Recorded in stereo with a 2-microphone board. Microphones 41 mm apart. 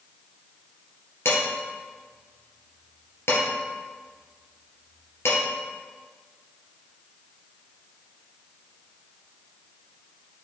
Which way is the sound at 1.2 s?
70° left (ahead or behind).